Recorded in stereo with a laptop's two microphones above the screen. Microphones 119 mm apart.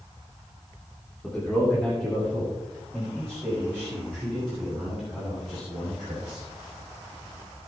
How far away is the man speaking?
About 2.5 m.